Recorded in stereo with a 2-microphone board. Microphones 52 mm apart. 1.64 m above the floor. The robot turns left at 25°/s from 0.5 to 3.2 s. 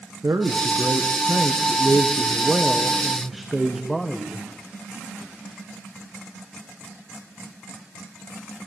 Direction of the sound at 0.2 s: 110° right.